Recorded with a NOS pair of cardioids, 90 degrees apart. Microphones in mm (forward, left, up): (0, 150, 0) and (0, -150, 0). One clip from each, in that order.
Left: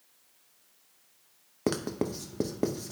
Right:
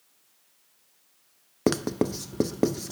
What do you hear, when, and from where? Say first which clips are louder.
1.7 s writing: right 5 dB; 25° right, 0.5 m